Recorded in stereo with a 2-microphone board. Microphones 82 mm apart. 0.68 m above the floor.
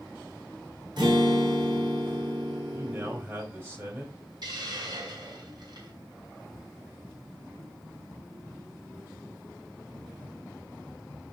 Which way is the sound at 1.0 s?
65° right (ahead or behind).